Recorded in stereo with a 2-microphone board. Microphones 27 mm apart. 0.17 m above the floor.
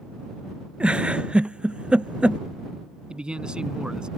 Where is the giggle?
40° right (ahead or behind).